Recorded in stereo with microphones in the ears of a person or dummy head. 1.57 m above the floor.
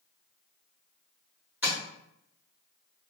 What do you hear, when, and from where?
1.6 s tapping: 10° right (ahead or behind), 1.1 m